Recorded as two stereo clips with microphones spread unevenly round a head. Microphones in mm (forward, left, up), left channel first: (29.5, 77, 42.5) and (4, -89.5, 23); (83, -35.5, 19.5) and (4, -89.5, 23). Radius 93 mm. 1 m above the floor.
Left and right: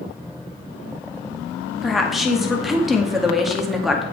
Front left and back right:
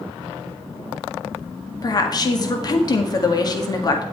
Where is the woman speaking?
10° right, 1.9 m.